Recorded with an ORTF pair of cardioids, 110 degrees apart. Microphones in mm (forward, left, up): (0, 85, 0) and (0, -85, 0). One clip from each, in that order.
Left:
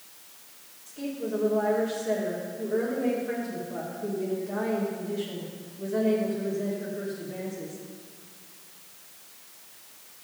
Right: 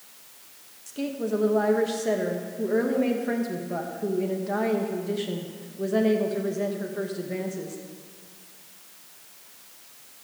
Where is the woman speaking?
50° right, 1.8 m.